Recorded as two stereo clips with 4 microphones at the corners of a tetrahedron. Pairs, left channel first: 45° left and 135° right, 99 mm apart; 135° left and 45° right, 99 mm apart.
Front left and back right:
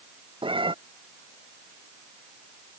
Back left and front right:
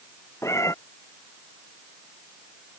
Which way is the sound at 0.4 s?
165° right.